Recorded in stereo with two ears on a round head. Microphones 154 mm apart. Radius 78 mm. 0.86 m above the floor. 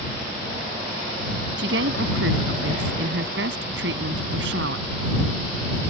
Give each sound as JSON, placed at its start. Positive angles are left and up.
{"t": 1.6, "sound": "a woman speaking", "side_deg": -70}